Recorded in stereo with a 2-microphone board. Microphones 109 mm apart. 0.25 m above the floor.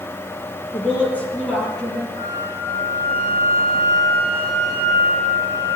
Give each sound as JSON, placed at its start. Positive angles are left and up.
{"t": 0.7, "sound": "a woman speaking", "side_deg": 20, "distance_m": 4.0}
{"t": 2.2, "sound": "a flute", "side_deg": -30, "distance_m": 6.0}